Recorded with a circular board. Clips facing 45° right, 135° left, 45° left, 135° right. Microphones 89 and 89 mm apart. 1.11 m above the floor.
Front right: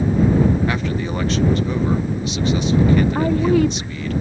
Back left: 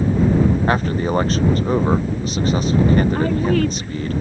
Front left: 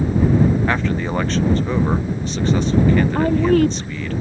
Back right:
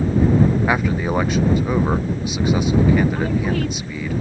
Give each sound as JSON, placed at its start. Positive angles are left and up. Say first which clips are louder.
{"t": 0.7, "sound": "a man speaking", "louder": "back left 4 dB, back right 1 dB", "azimuth_deg": 150}
{"t": 3.1, "sound": "a woman speaking", "louder": "front right 2 dB, front left 6 dB", "azimuth_deg": 25}